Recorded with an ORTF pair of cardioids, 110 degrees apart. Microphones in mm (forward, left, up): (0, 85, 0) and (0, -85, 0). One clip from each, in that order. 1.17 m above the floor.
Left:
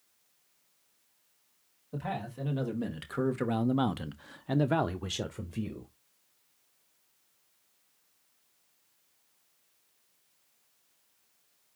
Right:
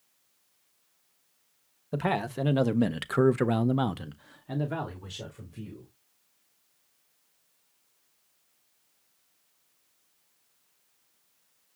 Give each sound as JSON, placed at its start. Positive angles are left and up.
{"t": 1.9, "sound": "a man speaking", "azimuth_deg": -65, "distance_m": 1.1}